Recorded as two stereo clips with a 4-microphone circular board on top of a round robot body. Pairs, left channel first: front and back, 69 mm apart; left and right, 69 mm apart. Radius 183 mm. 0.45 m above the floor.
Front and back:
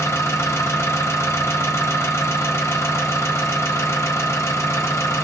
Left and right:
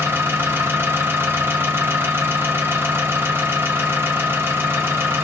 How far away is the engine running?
About 1.2 m.